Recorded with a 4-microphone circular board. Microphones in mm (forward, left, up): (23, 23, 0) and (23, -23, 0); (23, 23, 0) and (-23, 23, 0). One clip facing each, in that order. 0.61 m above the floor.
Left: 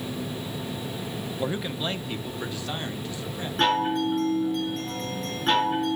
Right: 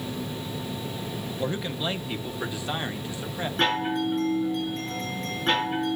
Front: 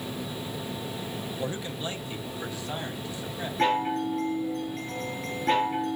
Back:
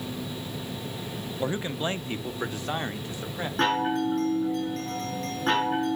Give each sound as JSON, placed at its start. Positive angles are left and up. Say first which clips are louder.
{"t": 1.4, "sound": "a man speaking", "louder": "even, back 6 dB", "azimuth_deg": 155, "distance_m": 0.6}
{"t": 3.6, "sound": "a chime", "louder": "left 3 dB, back 1 dB", "azimuth_deg": 180, "distance_m": 5.0}